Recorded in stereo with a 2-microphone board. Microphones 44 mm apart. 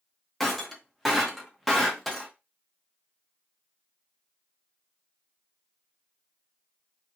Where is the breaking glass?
5° left (ahead or behind), 0.7 m.